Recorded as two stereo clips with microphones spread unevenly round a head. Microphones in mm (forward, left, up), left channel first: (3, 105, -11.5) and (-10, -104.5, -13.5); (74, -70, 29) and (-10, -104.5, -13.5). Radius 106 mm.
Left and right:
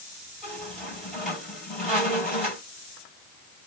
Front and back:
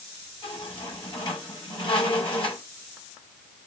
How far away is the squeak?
About 4 m.